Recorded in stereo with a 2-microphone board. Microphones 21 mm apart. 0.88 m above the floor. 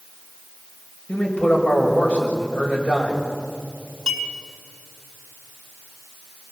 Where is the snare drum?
I don't hear a snare drum.